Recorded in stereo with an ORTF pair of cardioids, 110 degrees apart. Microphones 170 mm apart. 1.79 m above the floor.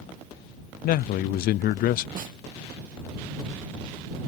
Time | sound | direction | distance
0.8 | a man speaking | 65° left | ?
2.1 | a snare drum | 50° right | ?